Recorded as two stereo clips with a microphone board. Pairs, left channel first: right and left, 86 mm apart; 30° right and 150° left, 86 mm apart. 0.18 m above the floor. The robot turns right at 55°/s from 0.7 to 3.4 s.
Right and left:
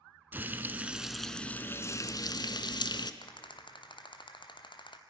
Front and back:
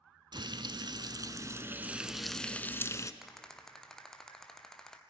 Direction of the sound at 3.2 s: 125° right.